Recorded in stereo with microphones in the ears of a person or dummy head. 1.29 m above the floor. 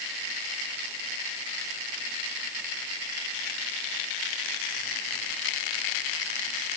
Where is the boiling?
I don't hear boiling.